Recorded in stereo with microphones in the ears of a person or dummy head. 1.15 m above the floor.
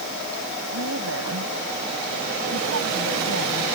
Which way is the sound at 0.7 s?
85° right.